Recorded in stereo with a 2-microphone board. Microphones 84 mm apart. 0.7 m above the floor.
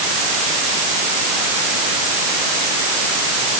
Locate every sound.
Only background noise.